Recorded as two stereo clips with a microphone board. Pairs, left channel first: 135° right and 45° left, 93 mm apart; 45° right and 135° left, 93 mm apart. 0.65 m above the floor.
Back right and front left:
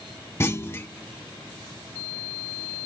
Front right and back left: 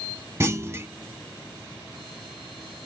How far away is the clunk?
About 0.6 m.